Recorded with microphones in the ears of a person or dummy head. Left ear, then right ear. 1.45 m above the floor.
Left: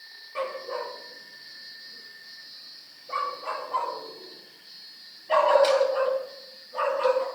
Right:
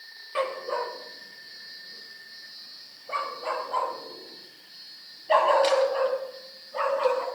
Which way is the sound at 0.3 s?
45° right (ahead or behind).